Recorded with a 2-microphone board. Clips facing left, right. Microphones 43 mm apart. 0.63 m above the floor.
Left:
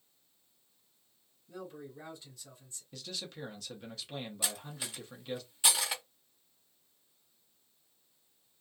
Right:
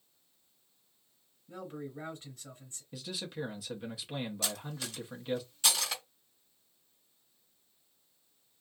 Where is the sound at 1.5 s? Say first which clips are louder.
Right 3 dB; 40° right (ahead or behind), 1.6 m.